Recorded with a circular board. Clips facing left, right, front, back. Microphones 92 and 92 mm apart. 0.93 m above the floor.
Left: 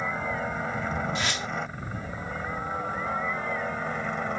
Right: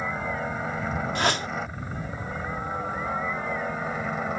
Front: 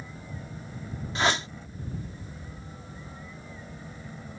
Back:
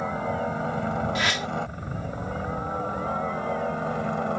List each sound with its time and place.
0.0 s a helicopter: straight behind; by 4.4 s 175° right
1.1 s a whoosh: 60° right